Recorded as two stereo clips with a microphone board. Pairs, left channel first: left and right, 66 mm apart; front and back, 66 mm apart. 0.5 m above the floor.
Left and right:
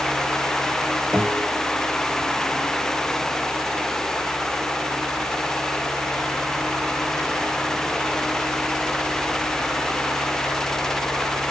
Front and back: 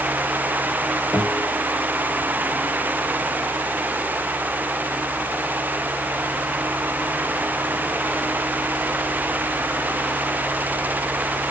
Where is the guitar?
10° right, 1.9 m.